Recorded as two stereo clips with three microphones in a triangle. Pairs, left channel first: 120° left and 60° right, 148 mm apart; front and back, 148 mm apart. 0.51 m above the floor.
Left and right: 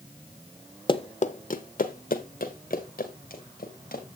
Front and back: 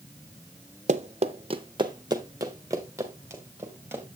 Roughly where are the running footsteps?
Behind.